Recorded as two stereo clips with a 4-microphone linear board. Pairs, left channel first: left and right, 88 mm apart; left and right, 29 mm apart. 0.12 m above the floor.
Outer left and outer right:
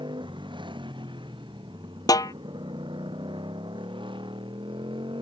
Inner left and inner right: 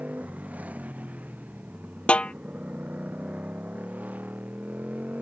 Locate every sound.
0.0 s a motorcycle: 65° right (ahead or behind); by 5.2 s 70° right (ahead or behind)
2.1 s a snare drum: 45° left (ahead or behind)